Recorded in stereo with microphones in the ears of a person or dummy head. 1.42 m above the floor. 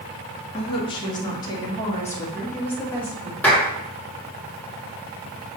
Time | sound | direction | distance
0.5 | a woman speaking | 30° left (ahead or behind) | 1.6 m
3.4 | a clap | 5° left (ahead or behind) | 1.8 m